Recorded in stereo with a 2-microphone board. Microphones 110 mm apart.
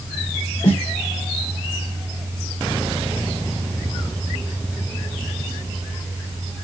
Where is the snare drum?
75° left (ahead or behind), 2.5 m.